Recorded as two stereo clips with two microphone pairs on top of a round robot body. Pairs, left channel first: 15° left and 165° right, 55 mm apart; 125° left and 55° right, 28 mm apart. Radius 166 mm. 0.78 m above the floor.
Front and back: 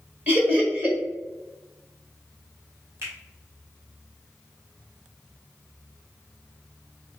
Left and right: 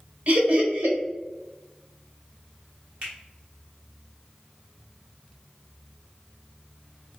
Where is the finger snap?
115° right, 2.0 m.